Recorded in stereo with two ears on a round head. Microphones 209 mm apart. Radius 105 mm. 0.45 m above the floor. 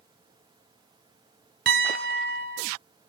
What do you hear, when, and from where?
1.7 s a piano: 45° right (ahead or behind), 2 m